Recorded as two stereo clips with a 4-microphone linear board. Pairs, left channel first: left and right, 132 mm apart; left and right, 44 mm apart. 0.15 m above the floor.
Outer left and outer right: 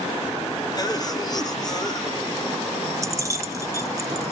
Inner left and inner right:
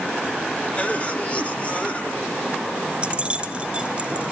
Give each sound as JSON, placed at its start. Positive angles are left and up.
{"t": 0.8, "sound": "a cough", "side_deg": 30, "distance_m": 3.0}
{"t": 3.0, "sound": "keys jangling", "side_deg": -25, "distance_m": 1.4}